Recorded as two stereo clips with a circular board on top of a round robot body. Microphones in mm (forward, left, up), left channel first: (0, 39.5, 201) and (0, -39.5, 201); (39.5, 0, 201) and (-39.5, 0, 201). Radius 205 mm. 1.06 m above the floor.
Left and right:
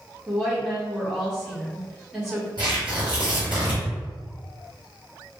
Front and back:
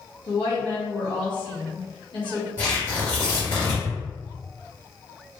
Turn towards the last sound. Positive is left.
turn(degrees=-55)